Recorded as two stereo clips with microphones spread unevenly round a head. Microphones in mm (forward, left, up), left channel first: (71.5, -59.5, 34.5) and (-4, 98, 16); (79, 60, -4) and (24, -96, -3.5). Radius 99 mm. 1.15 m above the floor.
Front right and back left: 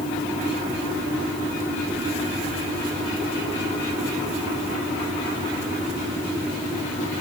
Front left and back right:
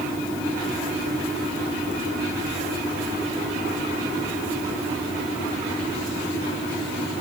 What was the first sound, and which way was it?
Only background noise.